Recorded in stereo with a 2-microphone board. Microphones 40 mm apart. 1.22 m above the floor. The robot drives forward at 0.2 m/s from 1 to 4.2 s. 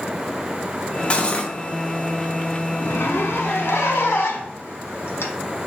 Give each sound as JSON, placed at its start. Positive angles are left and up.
{"t": 1.1, "sound": "cutlery clinking", "side_deg": 30, "distance_m": 0.5}
{"t": 2.8, "sound": "a zipper", "side_deg": 75, "distance_m": 0.6}